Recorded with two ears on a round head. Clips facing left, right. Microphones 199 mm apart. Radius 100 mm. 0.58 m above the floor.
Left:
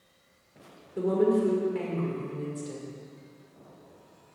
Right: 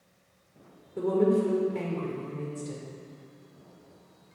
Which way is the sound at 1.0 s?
5° left (ahead or behind).